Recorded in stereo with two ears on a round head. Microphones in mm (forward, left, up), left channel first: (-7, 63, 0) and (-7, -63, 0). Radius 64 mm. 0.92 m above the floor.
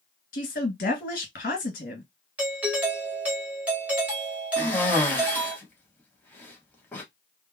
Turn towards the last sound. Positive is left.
turn(degrees=15)  # may be behind; listen again after turning